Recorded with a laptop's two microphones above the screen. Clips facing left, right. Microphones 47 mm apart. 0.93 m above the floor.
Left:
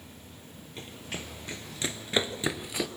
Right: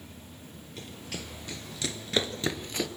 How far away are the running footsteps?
About 1.5 m.